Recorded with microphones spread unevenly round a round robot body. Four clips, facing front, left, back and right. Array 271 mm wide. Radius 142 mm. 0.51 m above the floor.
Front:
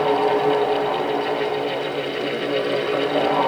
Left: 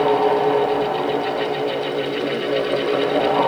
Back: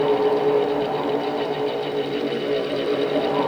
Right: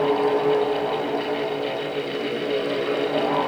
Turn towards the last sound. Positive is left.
No sound to turn to.